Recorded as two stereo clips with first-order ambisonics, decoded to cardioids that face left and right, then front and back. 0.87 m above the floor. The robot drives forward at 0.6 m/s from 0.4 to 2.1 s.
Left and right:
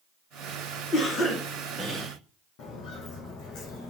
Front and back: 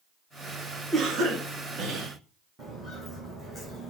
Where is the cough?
115° left, 0.7 m; by 2.1 s 155° left, 1.1 m.